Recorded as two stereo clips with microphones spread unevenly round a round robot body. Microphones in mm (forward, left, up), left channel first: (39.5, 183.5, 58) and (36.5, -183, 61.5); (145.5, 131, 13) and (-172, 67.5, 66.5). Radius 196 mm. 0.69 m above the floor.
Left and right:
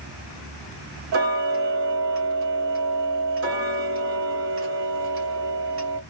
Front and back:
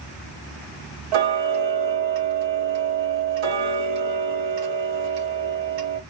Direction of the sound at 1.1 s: 145° right.